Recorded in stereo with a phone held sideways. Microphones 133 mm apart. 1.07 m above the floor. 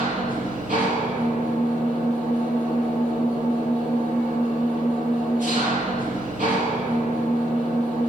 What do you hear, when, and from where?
0.0 s an engine running: 80° right, 6 m